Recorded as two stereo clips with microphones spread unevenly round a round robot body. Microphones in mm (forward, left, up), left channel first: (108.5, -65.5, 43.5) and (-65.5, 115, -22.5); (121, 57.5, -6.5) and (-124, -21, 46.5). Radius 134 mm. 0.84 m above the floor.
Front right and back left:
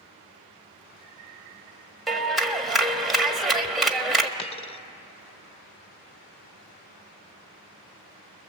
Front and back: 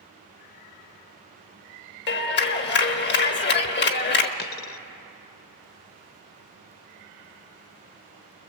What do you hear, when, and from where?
2.1 s a clap: 50° left, 1.3 m
4.4 s a dropped coin: 30° right, 0.6 m